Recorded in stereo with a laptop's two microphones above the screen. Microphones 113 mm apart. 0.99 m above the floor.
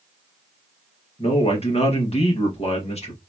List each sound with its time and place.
1.2 s a man speaking: 55° left (ahead or behind), 1.5 m